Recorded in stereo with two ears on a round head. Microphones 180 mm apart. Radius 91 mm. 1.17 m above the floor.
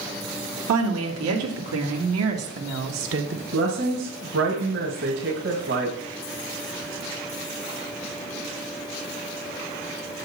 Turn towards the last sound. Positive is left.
turn(degrees=-60)  # may be behind; listen again after turning